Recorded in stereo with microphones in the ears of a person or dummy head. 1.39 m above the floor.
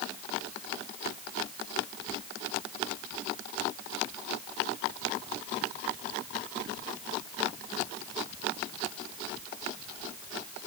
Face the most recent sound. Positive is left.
No sound to turn to.